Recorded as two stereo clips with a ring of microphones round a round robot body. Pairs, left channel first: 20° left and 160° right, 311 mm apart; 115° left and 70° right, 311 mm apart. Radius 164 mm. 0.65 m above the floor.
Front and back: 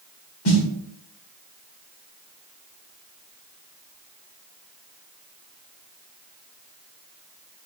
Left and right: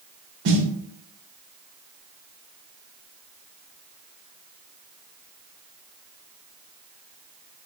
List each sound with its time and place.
0.5 s a snare drum: 15° right, 2 m